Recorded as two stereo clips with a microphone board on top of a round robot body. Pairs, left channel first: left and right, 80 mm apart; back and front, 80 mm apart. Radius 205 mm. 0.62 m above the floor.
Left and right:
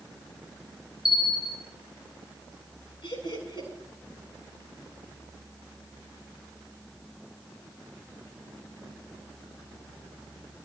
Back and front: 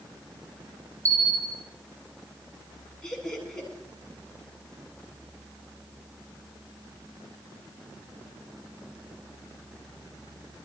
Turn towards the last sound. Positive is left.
turn(degrees=95)